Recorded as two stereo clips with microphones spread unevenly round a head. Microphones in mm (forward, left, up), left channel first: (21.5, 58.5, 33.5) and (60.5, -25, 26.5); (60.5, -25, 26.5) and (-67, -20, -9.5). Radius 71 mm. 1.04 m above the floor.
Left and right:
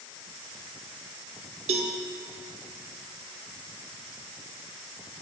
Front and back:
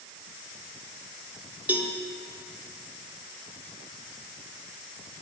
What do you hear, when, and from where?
1.7 s a cowbell: 100° right, 1.5 m